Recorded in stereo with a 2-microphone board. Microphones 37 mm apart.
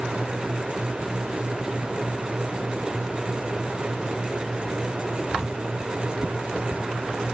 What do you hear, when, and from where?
Only background noise.